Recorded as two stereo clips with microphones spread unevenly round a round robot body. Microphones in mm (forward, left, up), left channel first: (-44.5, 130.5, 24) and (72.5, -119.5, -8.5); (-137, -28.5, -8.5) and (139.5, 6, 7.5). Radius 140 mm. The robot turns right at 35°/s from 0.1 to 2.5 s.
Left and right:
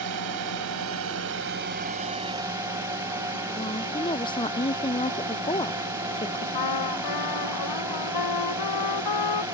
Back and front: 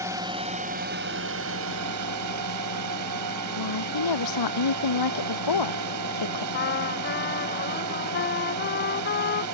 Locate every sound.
0.0 s a drone: 70° right; by 9.5 s 15° left
3.6 s a woman speaking: 170° right
6.5 s a trumpet: 130° left